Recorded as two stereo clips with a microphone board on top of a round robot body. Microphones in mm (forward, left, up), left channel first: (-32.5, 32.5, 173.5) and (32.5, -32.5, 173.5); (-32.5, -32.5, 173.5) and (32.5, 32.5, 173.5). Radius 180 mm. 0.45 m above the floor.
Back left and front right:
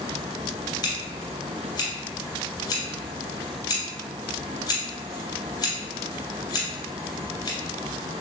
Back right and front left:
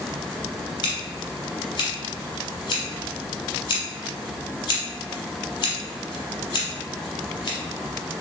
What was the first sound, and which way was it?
Scissors, 175° right.